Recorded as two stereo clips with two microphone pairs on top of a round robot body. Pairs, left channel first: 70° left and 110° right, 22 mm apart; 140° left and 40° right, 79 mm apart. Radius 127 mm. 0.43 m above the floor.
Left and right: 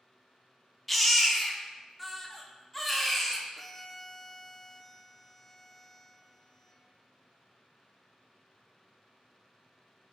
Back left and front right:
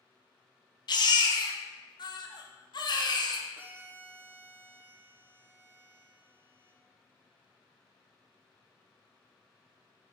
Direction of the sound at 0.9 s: 155° left.